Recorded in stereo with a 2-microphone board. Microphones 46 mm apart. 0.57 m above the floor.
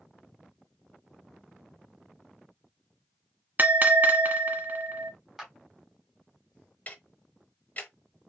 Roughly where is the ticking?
Left.